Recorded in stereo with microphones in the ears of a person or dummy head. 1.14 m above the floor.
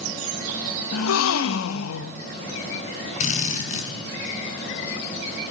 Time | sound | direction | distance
0.9 | a gasp | 85° left | 0.9 m
3.2 | a drill | 50° left (ahead or behind) | 5.5 m